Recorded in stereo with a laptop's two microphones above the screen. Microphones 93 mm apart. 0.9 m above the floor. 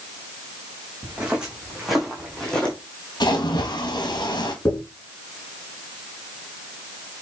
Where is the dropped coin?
20° left (ahead or behind), 3 m.